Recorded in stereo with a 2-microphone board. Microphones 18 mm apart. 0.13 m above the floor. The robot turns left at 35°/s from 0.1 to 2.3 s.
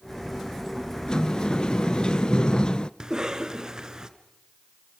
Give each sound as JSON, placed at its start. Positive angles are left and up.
{"t": 1.1, "sound": "a sliding door", "azimuth_deg": 125, "distance_m": 0.5}
{"t": 3.0, "sound": "a cough", "side_deg": -40, "distance_m": 1.4}